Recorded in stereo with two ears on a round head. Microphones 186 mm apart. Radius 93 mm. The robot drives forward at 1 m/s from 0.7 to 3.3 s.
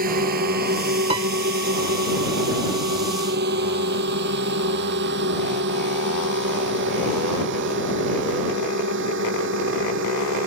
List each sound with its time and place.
0.0 s a drone: 45° right (ahead or behind); by 10.5 s 65° right (ahead or behind)
1.1 s a piano: 30° right (ahead or behind); by 1.3 s 25° right (ahead or behind)